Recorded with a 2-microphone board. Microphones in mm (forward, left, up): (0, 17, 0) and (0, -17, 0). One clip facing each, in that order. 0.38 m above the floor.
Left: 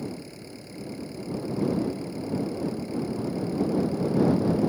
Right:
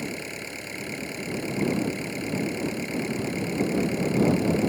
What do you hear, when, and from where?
0.0 s an engine running: 75° right (ahead or behind)